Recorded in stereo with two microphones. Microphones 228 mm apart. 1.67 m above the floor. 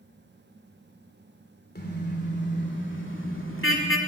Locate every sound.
1.8 s a car horn: 45° left (ahead or behind), 3 m; by 4.0 s 65° left (ahead or behind), 2.5 m